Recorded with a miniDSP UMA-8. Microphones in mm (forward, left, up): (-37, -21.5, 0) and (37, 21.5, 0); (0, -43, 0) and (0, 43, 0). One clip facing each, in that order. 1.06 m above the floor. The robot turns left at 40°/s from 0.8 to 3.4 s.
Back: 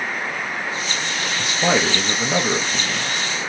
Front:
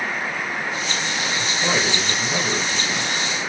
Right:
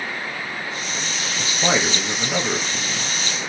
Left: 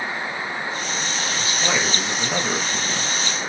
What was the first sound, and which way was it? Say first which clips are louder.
A man speaking: back 5 dB, right 4 dB; 145° right.